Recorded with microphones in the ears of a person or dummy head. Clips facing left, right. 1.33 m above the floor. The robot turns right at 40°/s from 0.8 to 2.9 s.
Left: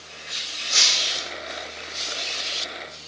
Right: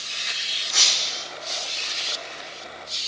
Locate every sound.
0.7 s breaking glass: 50° left (ahead or behind), 3.5 m; by 1.2 s 35° left (ahead or behind), 3.5 m